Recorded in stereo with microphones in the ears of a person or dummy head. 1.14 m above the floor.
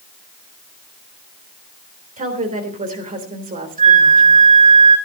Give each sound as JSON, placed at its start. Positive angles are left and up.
{"t": 2.2, "sound": "a woman speaking", "side_deg": -35, "distance_m": 3.5}
{"t": 3.8, "sound": "a flute", "side_deg": -40, "distance_m": 5.5}